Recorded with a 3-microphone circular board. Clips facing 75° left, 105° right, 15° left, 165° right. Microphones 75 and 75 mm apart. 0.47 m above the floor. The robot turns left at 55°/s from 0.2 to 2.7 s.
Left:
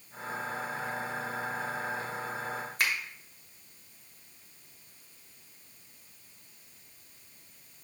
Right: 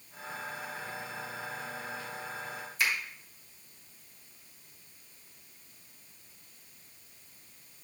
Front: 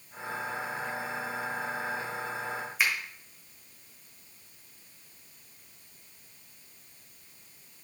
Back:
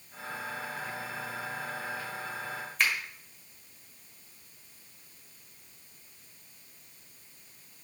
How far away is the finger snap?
About 2 m.